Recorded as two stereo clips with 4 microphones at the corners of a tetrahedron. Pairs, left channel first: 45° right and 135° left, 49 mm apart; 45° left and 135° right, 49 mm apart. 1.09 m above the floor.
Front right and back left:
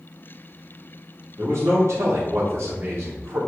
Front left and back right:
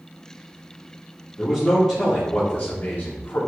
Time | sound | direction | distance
1.4 | a man speaking | 135° left | 3.5 m